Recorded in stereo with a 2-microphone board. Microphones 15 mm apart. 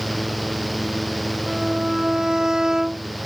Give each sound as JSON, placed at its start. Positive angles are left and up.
{"t": 1.5, "sound": "a violin", "side_deg": -55}